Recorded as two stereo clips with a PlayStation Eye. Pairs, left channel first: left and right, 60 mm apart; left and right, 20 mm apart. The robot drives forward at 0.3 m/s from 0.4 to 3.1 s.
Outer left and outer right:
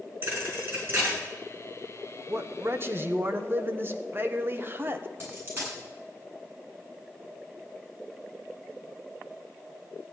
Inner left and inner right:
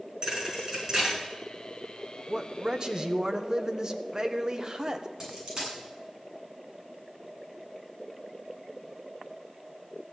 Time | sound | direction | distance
0.2 | a thud | 35° right (ahead or behind) | 5.5 m
2.3 | a man speaking | 45° right (ahead or behind) | 0.9 m
5.2 | a dropped coin | 35° right (ahead or behind) | 8 m